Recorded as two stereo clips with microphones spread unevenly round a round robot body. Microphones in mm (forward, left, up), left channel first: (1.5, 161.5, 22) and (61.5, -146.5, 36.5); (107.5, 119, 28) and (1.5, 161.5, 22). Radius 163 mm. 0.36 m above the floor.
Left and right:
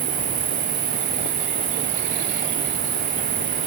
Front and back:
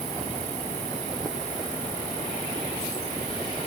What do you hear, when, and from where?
0.0 s an insect: 145° right